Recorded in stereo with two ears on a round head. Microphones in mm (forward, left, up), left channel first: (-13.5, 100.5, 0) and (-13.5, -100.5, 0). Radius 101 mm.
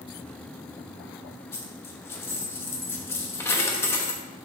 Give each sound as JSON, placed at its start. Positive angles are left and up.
{"t": 1.5, "sound": "a dropped coin", "side_deg": 10, "distance_m": 0.9}